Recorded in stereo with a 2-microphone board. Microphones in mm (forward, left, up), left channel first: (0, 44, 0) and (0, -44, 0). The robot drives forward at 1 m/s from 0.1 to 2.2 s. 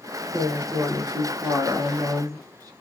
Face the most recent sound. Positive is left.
turn(degrees=-45)  # may be behind; listen again after turning